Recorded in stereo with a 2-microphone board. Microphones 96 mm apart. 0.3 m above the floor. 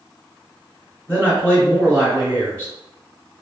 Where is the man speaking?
15° right (ahead or behind), 1.4 m.